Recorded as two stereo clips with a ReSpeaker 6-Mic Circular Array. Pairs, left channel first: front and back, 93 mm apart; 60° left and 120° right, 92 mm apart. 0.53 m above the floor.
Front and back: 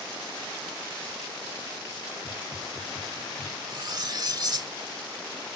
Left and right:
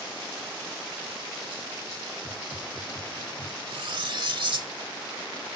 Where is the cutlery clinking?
140° right.